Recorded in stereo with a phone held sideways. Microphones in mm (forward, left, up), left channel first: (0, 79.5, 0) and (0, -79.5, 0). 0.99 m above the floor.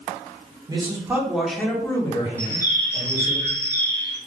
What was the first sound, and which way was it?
A man speaking, 25° right (ahead or behind).